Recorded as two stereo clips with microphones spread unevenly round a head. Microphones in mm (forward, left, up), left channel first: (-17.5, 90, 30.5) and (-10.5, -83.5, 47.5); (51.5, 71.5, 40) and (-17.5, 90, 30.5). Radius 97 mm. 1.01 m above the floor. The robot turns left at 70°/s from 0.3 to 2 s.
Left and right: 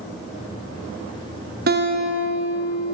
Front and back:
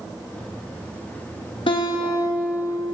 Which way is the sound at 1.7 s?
45° right.